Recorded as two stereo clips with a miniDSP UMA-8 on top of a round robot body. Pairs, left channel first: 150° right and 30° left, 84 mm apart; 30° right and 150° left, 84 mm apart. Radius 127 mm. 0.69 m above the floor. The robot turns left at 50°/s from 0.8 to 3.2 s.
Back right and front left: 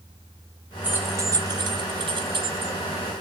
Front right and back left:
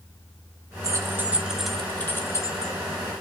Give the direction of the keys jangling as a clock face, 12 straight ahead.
9 o'clock.